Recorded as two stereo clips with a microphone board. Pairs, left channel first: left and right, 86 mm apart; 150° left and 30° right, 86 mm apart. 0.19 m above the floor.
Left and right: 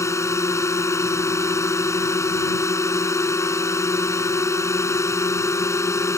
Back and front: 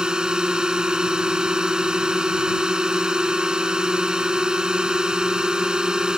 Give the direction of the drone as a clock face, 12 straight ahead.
10 o'clock.